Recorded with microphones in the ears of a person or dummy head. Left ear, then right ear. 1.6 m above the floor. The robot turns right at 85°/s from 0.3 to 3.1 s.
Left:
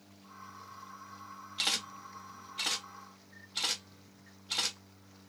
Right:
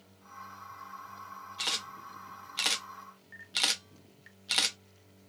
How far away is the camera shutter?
About 1.3 m.